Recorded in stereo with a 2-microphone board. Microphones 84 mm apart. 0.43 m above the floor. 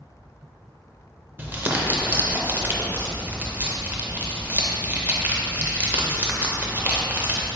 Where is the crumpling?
25° right (ahead or behind), 0.5 m.